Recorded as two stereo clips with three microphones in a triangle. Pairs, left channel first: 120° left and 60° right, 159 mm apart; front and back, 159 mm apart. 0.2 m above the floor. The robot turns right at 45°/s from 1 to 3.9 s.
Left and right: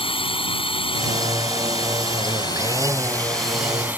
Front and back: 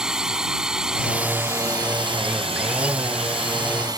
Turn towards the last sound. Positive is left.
turn(degrees=-135)